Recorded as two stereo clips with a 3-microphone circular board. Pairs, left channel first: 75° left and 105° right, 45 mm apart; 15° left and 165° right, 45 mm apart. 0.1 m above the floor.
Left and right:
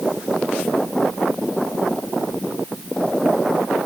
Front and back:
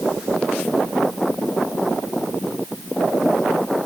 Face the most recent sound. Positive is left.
No sound to turn to.